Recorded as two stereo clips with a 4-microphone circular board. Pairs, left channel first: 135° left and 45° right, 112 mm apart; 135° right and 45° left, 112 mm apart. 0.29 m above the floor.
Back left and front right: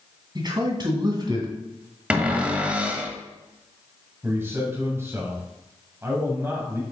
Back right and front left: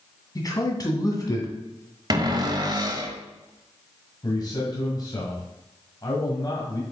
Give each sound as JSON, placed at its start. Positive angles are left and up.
{"t": 0.3, "sound": "a man speaking", "azimuth_deg": -85, "distance_m": 2.0}
{"t": 2.1, "sound": "a cupboard door", "azimuth_deg": 30, "distance_m": 1.2}
{"t": 4.2, "sound": "a man speaking", "azimuth_deg": -105, "distance_m": 1.9}